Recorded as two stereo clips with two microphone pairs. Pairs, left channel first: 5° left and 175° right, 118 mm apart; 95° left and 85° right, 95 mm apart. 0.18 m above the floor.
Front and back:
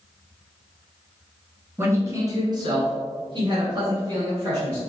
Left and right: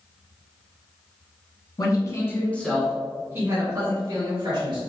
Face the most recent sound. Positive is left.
turn(degrees=-120)